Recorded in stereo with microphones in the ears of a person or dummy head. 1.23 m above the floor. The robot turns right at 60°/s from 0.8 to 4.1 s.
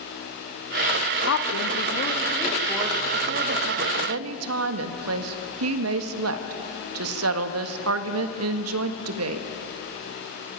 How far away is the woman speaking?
About 1.4 m.